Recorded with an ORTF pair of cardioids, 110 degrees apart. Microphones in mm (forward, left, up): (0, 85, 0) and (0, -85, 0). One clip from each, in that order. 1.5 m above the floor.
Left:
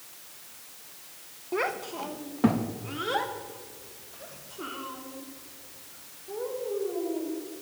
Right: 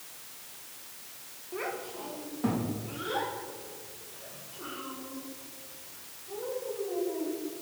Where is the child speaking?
60° left, 1.1 m; by 7.3 s 50° left, 5.5 m.